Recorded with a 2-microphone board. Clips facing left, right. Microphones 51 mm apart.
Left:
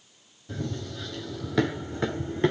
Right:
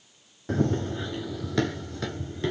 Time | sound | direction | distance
0.5 | running footsteps | 55° right (ahead or behind) | 0.7 m